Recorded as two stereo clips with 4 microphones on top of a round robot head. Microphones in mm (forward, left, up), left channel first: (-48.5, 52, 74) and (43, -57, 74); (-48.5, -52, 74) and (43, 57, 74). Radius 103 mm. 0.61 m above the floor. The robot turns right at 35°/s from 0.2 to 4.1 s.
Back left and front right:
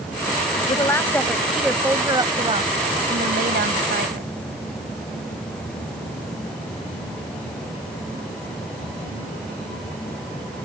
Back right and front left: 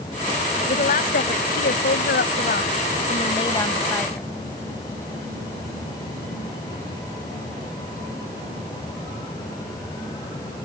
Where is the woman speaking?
165° right; by 4.3 s 45° right.